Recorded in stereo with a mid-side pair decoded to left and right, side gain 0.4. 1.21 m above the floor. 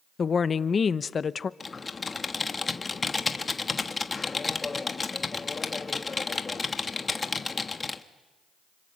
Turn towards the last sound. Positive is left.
turn(degrees=35)